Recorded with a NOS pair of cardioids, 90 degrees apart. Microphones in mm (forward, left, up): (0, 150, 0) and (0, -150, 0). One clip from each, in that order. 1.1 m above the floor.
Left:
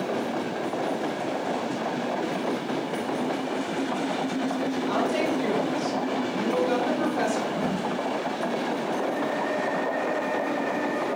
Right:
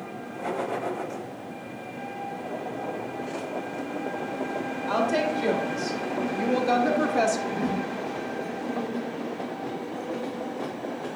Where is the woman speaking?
30° right, 3.5 m; by 7.4 s 45° right, 2 m.